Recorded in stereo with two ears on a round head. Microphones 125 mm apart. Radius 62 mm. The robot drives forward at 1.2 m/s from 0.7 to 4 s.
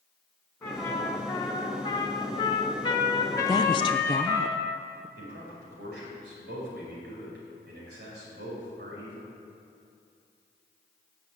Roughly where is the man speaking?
Right.